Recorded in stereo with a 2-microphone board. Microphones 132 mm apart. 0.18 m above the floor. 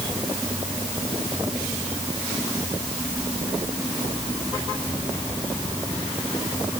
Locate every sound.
Only background noise.